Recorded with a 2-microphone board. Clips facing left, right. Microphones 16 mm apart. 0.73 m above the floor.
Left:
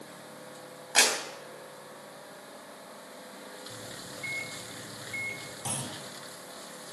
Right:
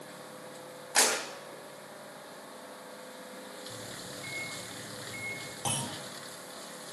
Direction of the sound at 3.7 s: 35° left (ahead or behind).